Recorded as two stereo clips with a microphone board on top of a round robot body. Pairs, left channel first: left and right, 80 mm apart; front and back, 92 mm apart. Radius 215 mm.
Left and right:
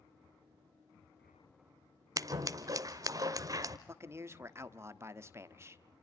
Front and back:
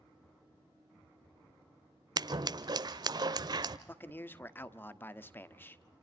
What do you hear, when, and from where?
2.2 s scissors: 135° right, 0.8 m
3.9 s a man speaking: 55° right, 1.6 m